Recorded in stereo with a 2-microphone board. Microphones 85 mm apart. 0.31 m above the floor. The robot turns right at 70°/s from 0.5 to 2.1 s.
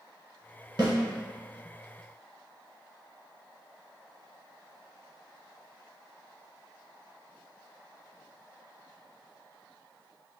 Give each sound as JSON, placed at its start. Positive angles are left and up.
{"t": 0.8, "sound": "a snare drum", "side_deg": -60, "distance_m": 1.8}